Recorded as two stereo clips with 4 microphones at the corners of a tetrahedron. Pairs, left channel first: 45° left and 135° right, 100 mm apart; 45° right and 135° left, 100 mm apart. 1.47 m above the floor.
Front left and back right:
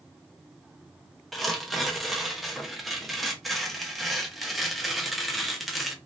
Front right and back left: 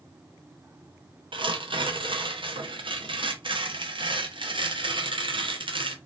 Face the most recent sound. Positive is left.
turn(degrees=135)